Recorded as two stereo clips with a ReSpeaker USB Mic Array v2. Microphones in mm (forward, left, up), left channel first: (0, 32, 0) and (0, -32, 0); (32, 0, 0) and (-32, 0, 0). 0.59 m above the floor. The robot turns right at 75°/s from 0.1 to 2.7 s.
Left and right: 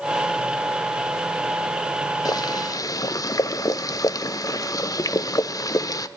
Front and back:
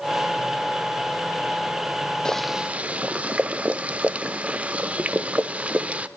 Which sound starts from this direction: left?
Boiling, at 2.2 s.